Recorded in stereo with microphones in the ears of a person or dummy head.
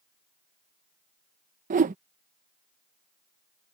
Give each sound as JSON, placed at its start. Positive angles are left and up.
{"t": 1.7, "sound": "a whoosh", "side_deg": -40}